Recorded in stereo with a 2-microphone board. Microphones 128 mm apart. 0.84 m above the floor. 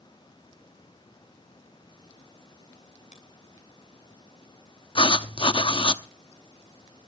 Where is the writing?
40° left (ahead or behind), 0.8 m.